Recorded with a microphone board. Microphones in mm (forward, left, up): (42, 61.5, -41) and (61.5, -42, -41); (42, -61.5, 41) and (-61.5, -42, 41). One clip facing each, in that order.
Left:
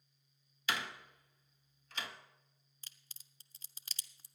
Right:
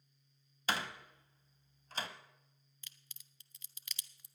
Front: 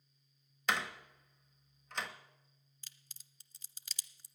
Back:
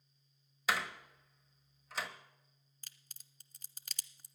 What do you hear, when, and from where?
0.7 s a door slam: 105° right, 1.1 m
2.8 s a crack: 145° left, 0.7 m